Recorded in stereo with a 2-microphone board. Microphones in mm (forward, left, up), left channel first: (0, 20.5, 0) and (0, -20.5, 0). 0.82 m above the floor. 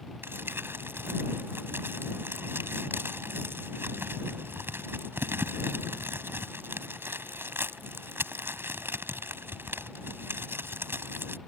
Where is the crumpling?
60° right (ahead or behind).